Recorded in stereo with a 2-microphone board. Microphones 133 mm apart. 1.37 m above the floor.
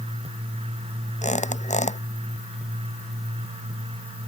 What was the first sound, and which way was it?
A squeak, 60° left (ahead or behind).